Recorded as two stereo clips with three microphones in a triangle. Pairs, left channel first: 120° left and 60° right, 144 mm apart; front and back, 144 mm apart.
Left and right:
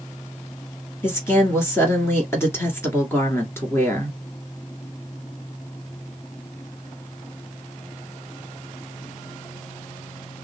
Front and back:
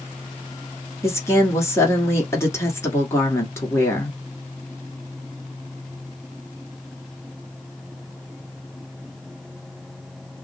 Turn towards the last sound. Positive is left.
turn(degrees=60)